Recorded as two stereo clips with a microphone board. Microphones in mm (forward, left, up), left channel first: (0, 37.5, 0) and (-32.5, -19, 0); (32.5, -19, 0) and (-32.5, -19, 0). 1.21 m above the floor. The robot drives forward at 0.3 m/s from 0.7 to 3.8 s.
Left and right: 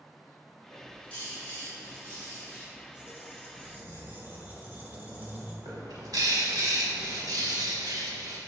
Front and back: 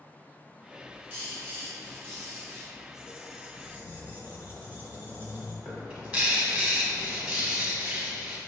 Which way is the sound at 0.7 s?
125° left.